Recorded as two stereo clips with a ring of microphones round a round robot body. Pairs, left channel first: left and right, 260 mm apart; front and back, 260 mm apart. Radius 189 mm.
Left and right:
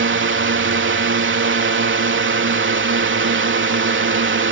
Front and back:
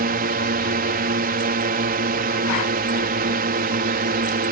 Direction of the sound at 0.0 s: 125° right.